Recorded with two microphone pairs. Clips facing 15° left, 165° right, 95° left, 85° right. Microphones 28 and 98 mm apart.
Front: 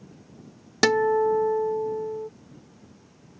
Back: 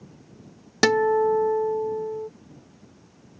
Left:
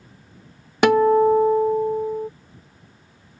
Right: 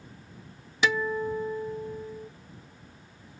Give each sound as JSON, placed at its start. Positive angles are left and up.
{"t": 0.8, "sound": "a guitar", "azimuth_deg": 110}